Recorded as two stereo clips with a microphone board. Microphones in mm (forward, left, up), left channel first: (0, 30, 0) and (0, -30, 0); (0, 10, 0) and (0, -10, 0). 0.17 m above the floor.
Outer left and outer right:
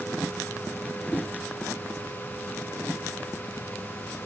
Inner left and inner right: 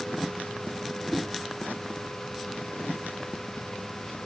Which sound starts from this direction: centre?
A whoosh, at 1.1 s.